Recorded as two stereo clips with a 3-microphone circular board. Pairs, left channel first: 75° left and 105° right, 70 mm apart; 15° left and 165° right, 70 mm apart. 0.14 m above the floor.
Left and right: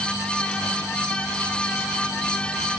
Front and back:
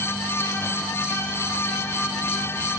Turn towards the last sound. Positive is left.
No sound to turn to.